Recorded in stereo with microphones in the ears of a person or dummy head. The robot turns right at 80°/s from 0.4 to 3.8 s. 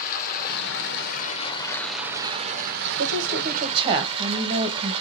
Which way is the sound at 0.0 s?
60° left.